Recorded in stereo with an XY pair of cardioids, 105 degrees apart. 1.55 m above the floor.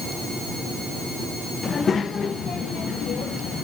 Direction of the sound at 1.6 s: 40° left.